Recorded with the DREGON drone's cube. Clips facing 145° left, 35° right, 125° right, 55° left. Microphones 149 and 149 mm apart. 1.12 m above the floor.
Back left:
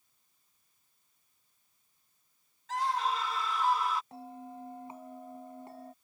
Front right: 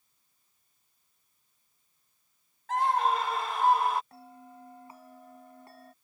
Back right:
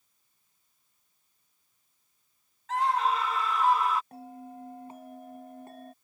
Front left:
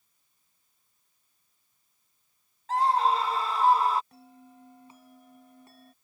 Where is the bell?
150° right.